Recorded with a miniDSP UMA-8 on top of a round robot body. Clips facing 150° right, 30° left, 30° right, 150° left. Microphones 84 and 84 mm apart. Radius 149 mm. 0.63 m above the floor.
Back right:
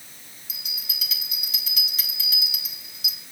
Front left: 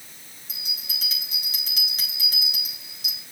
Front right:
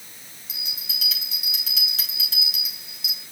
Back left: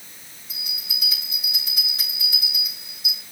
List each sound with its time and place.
0.5 s a bell: 25° right, 2.5 m